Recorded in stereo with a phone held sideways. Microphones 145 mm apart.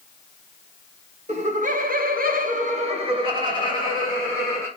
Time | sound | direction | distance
1.3 | laughter | 50° right (ahead or behind) | 1.0 m